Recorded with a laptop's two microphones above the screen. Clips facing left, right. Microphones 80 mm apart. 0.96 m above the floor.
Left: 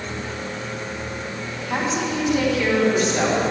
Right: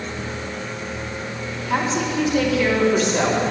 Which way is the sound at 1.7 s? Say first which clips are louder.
Right 2 dB; 5° left (ahead or behind).